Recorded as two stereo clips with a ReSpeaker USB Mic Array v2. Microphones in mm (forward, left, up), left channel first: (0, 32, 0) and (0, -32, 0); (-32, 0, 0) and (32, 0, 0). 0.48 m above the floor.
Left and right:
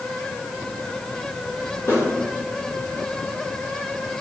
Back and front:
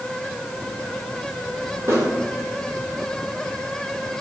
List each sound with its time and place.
1.9 s a snare drum: 45° left, 5 m